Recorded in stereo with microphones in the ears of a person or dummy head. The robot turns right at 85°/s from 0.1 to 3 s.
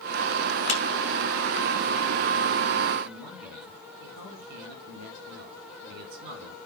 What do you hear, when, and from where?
0.7 s a clap: 80° left, 2.5 m; by 0.8 s 70° left (ahead or behind), 2.5 m
3.0 s a man speaking: 70° right (ahead or behind), 8 m